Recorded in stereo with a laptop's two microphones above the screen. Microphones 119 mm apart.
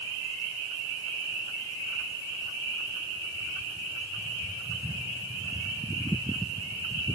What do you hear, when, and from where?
Only background noise.